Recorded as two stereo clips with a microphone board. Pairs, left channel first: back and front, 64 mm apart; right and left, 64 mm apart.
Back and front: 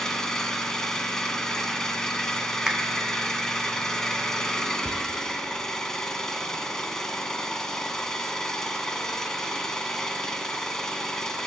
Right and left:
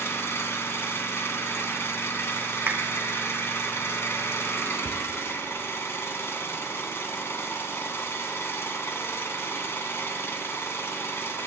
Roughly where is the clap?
Ahead left.